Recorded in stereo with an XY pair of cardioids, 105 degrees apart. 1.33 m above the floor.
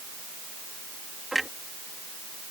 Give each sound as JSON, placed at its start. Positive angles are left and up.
{"t": 1.3, "sound": "a clunk", "azimuth_deg": -10}